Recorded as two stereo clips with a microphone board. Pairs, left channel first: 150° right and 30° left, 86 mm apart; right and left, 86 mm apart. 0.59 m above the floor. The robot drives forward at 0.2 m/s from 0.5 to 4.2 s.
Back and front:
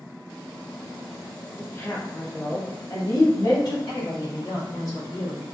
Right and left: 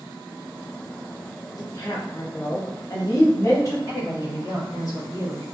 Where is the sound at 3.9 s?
125° right, 1.2 m; by 5.4 s 130° right, 1.3 m.